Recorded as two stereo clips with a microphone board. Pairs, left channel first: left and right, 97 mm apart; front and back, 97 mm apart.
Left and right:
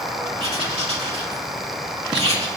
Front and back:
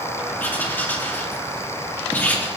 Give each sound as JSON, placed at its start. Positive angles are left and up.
{"t": 0.4, "sound": "writing", "azimuth_deg": -70, "distance_m": 2.5}